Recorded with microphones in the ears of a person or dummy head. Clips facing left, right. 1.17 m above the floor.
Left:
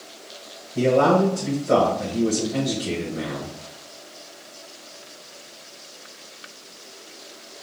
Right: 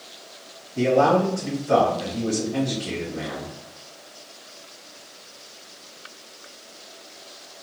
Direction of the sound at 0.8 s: 45° left (ahead or behind).